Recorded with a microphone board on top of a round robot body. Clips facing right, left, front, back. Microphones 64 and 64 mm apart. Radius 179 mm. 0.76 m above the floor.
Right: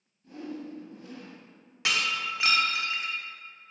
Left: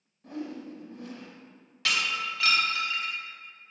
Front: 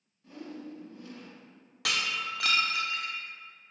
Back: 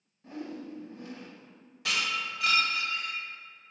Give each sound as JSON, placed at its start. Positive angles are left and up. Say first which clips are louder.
{"t": 0.2, "sound": "a whoosh", "louder": "left 1 dB, back 3 dB", "azimuth_deg": 120, "distance_m": 1.2}
{"t": 1.9, "sound": "breaking glass", "louder": "even, even", "azimuth_deg": -20, "distance_m": 1.5}